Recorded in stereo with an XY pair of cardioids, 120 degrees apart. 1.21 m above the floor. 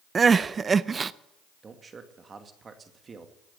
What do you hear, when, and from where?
0.1 s crying: 30° right, 0.5 m
1.6 s a man speaking: 30° right, 2 m